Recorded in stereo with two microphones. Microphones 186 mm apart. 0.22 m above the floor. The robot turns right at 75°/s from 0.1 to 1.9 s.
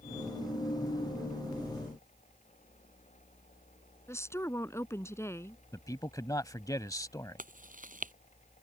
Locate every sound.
4.1 s a woman speaking: 15° left (ahead or behind)
5.7 s a man speaking: 20° left (ahead or behind)
7.4 s chewing: 45° right (ahead or behind)